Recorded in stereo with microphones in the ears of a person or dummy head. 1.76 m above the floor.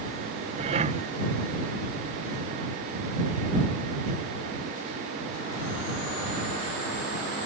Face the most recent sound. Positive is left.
turn(degrees=-40)  # may be behind; listen again after turning